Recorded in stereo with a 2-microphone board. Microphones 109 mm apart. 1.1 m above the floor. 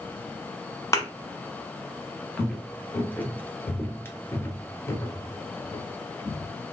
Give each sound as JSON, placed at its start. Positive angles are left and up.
{"t": 0.9, "sound": "a thud", "side_deg": 25, "distance_m": 1.1}
{"t": 2.4, "sound": "footsteps", "side_deg": 5, "distance_m": 1.2}